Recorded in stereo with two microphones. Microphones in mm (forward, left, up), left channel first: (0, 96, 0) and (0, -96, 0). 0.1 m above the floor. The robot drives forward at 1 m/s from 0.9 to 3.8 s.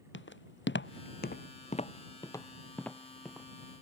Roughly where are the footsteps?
Left.